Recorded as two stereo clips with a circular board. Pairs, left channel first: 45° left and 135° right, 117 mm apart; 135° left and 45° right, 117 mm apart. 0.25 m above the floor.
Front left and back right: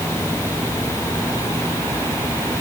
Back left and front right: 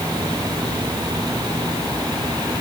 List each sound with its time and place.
Only background noise.